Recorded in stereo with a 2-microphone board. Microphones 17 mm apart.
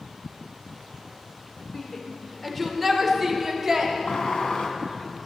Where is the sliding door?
80° left, 1.2 m.